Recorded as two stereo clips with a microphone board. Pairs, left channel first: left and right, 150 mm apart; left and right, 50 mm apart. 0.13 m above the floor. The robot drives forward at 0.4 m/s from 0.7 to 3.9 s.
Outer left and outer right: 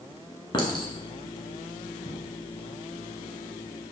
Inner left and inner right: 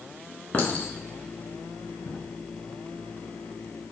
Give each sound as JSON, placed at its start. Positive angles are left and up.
{"t": 0.5, "sound": "a clink", "side_deg": 35, "distance_m": 1.0}